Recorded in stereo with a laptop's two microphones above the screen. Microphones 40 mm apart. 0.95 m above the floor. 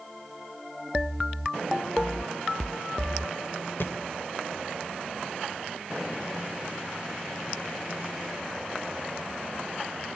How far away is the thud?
About 1.7 m.